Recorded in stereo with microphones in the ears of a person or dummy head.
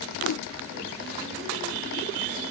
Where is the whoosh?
90° left, 0.6 m.